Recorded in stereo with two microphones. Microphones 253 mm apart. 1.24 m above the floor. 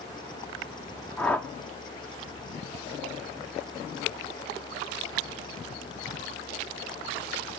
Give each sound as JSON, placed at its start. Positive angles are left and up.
{"t": 1.2, "sound": "a whoosh", "side_deg": 5, "distance_m": 0.9}